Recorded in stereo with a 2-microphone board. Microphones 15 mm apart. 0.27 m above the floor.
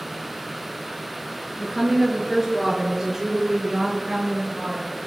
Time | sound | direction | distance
1.6 | a woman speaking | 10° right (ahead or behind) | 4.5 m